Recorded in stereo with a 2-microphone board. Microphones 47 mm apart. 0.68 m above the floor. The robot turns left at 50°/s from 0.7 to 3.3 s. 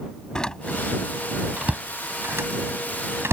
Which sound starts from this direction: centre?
A door slam, at 0.3 s.